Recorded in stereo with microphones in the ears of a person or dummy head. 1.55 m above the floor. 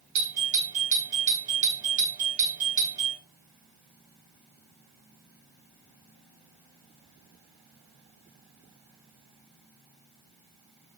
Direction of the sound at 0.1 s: 40° right (ahead or behind).